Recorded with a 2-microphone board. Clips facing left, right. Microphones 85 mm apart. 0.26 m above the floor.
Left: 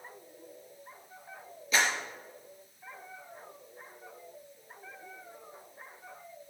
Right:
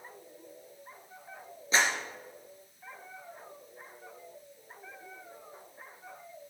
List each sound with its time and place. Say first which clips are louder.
1.7 s a clap: right 1 dB; 30° right (ahead or behind), 3 m